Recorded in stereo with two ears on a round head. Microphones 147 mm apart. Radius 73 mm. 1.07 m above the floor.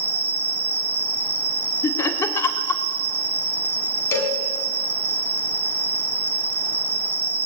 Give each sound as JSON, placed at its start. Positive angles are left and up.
{"t": 0.0, "sound": "an insect", "side_deg": -65, "distance_m": 1.2}
{"t": 1.8, "sound": "laughter", "side_deg": 15, "distance_m": 3.0}
{"t": 4.1, "sound": "a cowbell", "side_deg": 15, "distance_m": 5.0}